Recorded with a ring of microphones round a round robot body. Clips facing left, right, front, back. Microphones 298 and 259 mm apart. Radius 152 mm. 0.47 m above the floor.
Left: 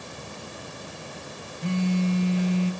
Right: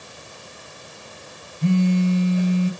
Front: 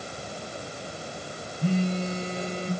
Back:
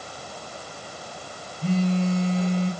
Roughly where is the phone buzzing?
Right.